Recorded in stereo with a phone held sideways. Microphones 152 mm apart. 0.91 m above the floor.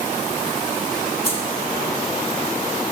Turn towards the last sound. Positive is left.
turn(degrees=75)  # may be behind; listen again after turning